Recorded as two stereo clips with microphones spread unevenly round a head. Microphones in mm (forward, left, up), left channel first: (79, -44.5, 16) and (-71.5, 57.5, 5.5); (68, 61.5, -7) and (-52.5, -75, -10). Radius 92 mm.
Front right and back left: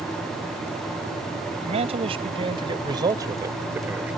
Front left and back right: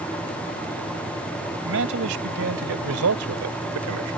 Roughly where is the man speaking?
Behind right.